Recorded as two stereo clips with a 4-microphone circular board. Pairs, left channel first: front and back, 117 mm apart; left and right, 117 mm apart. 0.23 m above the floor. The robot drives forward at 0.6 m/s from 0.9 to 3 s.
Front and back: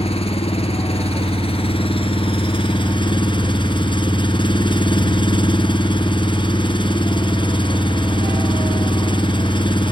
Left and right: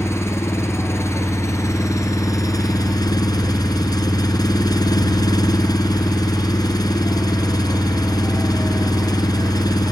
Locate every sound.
0.0 s an engine running: 25° left; by 9.9 s 40° left